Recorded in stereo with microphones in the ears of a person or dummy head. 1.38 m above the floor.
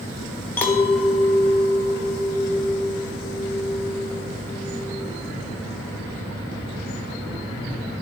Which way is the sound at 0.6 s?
10° left (ahead or behind).